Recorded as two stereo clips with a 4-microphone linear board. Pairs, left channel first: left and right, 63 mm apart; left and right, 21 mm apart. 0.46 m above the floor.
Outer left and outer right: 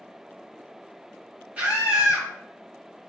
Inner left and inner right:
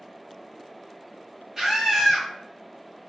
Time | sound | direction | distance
1.6 | a scream | 20° right (ahead or behind) | 1.4 m